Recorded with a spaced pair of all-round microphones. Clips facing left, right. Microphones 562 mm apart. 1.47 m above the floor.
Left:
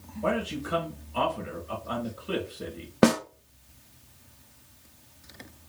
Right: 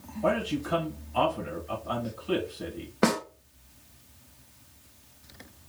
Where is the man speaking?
15° right (ahead or behind), 1.3 m.